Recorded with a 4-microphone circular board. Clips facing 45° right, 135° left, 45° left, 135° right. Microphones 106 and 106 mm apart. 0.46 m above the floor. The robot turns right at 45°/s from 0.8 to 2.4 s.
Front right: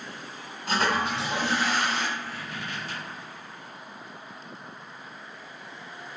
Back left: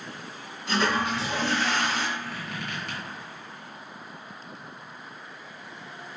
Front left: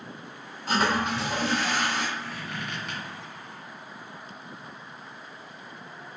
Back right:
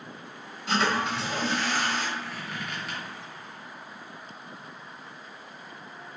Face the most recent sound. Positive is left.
turn(degrees=135)